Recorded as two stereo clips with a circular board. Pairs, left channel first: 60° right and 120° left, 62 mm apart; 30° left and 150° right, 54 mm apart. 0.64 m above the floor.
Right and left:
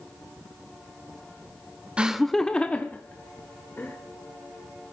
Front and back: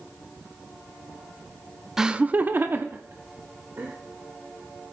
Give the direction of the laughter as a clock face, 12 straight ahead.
7 o'clock.